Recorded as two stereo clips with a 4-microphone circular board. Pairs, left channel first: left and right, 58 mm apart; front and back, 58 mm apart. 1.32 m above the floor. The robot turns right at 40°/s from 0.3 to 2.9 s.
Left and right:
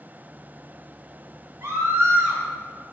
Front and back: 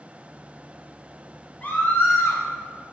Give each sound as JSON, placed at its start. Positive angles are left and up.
{"t": 1.6, "sound": "a scream", "azimuth_deg": -60, "distance_m": 3.0}